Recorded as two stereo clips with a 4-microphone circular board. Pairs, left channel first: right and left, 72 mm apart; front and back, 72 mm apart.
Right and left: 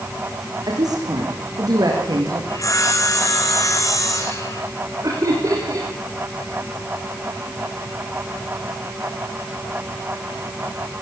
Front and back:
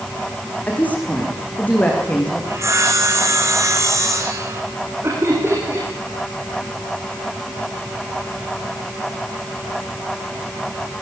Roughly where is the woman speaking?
Left.